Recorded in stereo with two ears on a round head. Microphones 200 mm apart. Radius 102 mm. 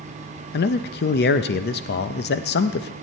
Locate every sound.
0.5 s a man speaking: 45° left (ahead or behind), 0.5 m